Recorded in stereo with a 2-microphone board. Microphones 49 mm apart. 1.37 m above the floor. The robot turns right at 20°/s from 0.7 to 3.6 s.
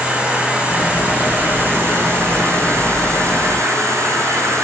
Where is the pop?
I don't hear a pop.